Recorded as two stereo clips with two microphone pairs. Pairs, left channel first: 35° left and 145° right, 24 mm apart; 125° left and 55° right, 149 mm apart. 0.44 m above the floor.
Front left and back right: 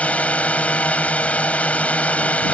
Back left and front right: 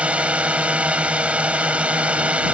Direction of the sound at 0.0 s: 30° left.